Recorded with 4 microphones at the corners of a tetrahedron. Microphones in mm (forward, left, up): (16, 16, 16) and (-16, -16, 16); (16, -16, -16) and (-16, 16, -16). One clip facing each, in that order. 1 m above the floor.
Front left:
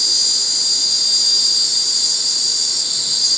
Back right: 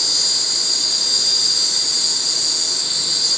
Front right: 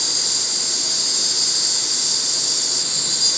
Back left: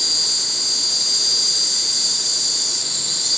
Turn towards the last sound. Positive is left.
turn(degrees=-60)